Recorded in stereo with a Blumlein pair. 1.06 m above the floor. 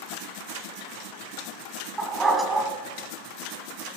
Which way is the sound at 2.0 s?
15° right.